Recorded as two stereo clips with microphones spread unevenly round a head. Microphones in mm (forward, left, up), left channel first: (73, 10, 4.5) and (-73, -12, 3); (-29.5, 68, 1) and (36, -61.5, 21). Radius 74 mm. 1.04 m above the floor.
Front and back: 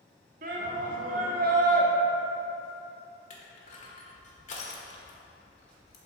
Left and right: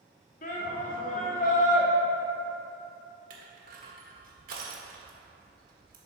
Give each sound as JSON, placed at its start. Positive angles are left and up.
{"t": 0.4, "sound": "a shout", "azimuth_deg": 155, "distance_m": 1.7}
{"t": 3.3, "sound": "crushing", "azimuth_deg": -35, "distance_m": 1.5}